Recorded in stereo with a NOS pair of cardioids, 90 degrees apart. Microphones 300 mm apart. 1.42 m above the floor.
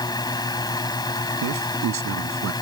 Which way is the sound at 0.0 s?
15° left.